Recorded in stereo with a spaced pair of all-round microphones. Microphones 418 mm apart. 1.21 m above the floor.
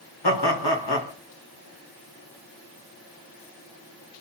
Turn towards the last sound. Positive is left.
turn(degrees=70)  # may be behind; listen again after turning